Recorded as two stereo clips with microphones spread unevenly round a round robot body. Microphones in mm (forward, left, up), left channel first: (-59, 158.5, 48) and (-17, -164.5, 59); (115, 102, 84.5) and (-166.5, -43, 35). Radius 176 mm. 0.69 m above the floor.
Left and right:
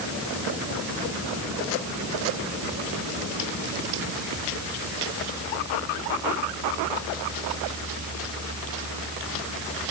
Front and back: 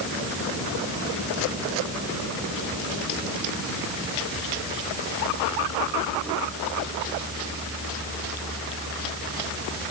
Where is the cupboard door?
No cupboard door in this recording.